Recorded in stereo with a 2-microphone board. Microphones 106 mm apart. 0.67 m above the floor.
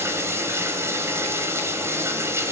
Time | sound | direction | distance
0.0 | running water | 25° right (ahead or behind) | 3.5 m